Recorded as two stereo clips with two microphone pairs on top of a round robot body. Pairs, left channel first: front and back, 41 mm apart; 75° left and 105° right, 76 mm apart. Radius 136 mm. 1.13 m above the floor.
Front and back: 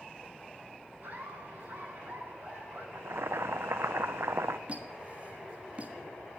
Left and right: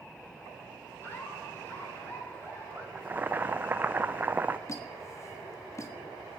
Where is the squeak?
125° left, 1.3 m.